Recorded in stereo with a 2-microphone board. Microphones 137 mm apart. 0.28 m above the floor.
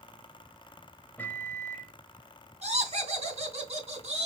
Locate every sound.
1.2 s a microwave: 15° left (ahead or behind), 0.7 m
2.6 s laughter: 50° right (ahead or behind), 2.5 m